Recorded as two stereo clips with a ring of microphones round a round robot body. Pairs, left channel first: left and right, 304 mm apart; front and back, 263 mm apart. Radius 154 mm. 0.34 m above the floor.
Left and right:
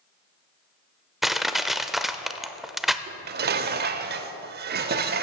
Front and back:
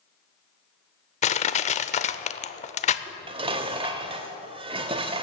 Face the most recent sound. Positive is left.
turn(degrees=-120)